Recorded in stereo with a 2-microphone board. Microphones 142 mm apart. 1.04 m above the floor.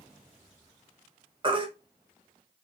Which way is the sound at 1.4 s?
35° right (ahead or behind).